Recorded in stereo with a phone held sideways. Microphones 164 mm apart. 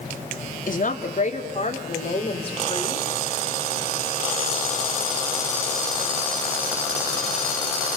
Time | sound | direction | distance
0.7 | a woman speaking | 55° left (ahead or behind) | 3 m